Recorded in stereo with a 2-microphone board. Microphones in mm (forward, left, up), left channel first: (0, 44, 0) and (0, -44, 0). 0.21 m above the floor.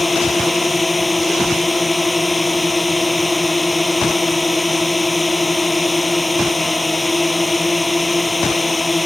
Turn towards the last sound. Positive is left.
turn(degrees=0)  # may be behind; listen again after turning